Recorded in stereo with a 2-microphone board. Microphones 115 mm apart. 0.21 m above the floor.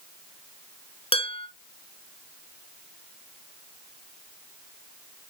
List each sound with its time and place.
1.1 s dishes clattering: 60° left (ahead or behind), 1.5 m